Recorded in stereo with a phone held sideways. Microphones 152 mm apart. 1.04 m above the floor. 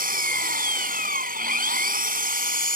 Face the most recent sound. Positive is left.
turn(degrees=-70)  # may be behind; listen again after turning